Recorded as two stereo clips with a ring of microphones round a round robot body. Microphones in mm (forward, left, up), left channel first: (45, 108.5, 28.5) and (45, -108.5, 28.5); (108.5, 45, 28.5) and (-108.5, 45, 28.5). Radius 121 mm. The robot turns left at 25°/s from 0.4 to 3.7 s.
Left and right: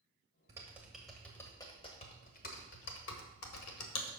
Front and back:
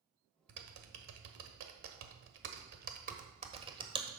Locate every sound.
0.5 s typing on a keyboard: 165° right, 1.3 m; by 4.1 s 115° left, 1.3 m